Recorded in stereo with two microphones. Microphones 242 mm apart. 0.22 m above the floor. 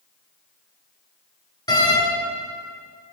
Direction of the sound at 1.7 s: 15° left (ahead or behind).